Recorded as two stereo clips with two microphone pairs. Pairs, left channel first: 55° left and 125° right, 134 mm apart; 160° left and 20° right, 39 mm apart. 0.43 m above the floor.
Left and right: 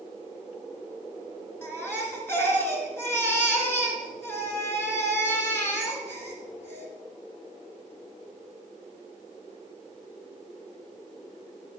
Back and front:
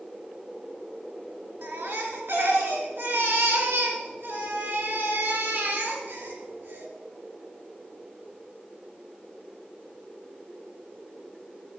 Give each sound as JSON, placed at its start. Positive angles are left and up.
{"t": 1.6, "sound": "a baby crying", "azimuth_deg": -15, "distance_m": 2.5}